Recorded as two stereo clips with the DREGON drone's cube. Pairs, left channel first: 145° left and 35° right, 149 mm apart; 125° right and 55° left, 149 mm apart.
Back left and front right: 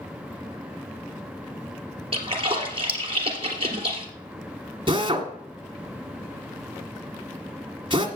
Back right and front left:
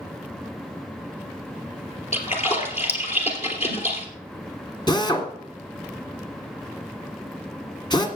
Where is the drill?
75° right, 1.7 m.